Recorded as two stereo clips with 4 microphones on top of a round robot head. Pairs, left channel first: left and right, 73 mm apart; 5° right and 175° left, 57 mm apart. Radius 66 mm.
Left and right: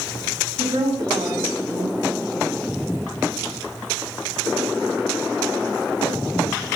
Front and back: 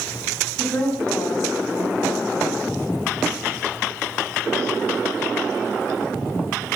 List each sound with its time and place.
0.6 s a woman speaking: 60° right, 5 m